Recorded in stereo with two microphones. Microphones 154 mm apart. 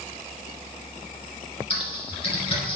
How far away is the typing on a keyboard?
About 1.7 m.